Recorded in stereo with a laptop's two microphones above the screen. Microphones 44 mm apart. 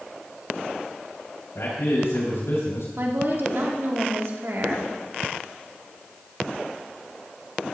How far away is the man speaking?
About 5.5 m.